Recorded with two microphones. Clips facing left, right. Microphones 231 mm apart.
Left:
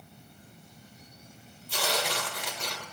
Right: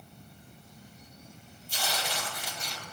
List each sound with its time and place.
1.7 s tearing paper: 80° left, 3 m